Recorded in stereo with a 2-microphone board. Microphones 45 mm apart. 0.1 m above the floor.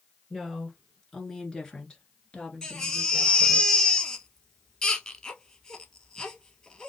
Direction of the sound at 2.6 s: 20° left (ahead or behind).